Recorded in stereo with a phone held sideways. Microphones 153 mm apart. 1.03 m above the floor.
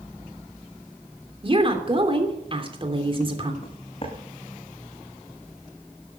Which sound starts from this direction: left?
Footsteps, at 3.6 s.